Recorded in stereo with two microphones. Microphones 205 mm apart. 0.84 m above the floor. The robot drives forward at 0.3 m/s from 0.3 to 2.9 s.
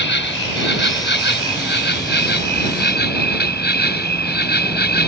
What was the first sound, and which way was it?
An insect, 70° left (ahead or behind).